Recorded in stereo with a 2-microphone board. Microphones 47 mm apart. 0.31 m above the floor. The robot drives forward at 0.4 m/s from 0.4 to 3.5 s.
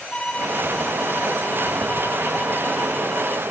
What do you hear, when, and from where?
0.1 s a violin: 25° left (ahead or behind); by 3.4 s 20° left (ahead or behind)